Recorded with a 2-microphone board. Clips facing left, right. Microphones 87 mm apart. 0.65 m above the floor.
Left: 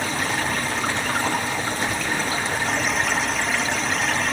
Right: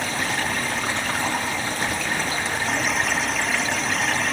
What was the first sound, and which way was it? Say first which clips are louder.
Running water: left 1 dB; centre (ahead or behind).